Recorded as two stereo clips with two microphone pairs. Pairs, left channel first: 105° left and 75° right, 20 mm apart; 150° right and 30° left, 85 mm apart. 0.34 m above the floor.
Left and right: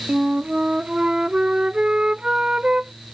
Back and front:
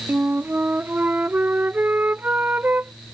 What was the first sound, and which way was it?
A flute, 40° right.